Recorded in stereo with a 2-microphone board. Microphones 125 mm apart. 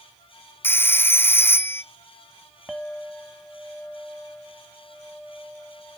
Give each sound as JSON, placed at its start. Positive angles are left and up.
{"t": 0.6, "sound": "a phone ringing", "side_deg": 20, "distance_m": 0.5}
{"t": 2.7, "sound": "a clink", "side_deg": 0, "distance_m": 1.4}